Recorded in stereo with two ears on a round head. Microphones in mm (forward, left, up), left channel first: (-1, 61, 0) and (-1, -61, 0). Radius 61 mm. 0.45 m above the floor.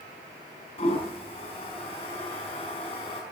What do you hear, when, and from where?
0.8 s a toilet flushing: 40° left (ahead or behind), 5 m